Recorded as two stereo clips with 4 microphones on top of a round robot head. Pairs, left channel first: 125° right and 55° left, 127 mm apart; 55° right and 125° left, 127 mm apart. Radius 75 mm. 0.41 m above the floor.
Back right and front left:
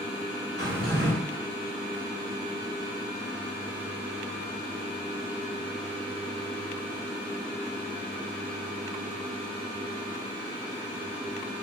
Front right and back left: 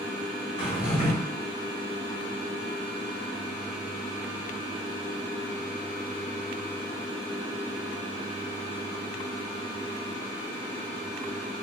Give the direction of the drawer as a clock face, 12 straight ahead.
12 o'clock.